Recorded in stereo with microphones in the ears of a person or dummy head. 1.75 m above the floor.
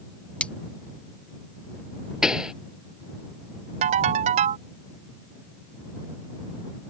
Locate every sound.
0.4 s cutlery clinking: 10° left (ahead or behind)
2.2 s a pop: 5° right (ahead or behind)
3.8 s a ringtone: 45° right (ahead or behind)